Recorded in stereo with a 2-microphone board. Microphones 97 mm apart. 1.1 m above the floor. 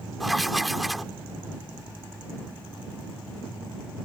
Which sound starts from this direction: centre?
Writing, at 0.2 s.